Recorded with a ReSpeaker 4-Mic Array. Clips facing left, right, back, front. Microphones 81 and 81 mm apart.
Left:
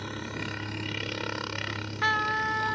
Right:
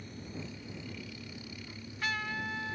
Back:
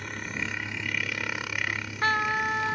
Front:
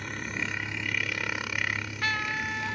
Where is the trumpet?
125° left.